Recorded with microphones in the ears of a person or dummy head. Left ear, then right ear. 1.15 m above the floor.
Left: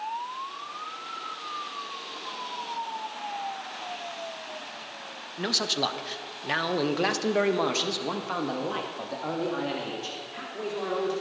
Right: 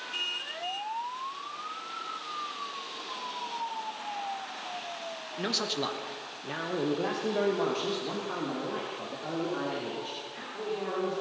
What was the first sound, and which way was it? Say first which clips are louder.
A man speaking: left 5 dB; 5° left (ahead or behind).